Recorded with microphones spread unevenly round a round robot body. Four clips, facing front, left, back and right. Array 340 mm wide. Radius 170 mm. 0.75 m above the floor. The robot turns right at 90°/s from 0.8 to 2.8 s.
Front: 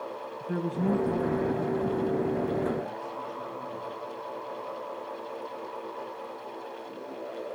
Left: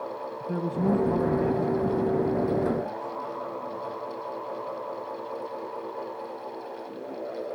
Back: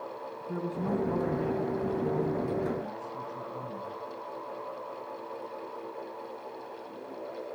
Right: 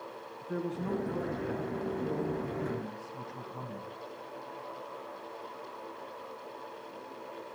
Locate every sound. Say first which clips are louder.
0.4 s a man speaking: left 7 dB, front 4 dB; 65° left, 7 m; by 3.9 s 115° right, 7 m